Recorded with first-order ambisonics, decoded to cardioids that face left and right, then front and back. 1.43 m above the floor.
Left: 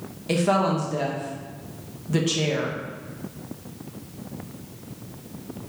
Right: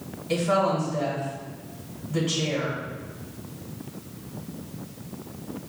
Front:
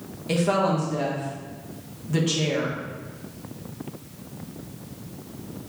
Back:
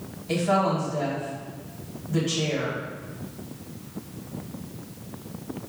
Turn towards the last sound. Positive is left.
turn(degrees=60)